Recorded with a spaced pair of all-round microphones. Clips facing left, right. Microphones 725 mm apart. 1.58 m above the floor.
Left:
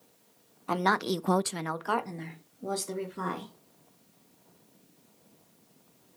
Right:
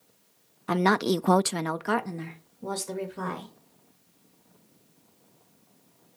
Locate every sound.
0.7 s a woman speaking: 50° right (ahead or behind), 0.6 m; by 3.5 s 20° right (ahead or behind), 1.4 m